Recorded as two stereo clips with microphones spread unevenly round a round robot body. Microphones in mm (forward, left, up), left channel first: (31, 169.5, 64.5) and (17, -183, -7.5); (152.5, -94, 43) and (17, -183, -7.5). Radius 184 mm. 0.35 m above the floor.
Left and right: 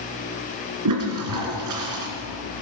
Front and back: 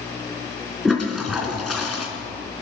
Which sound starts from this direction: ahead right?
A toilet flushing, at 0.8 s.